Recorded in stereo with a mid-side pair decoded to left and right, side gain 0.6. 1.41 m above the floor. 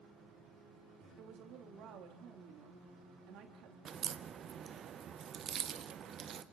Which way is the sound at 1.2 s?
65° right.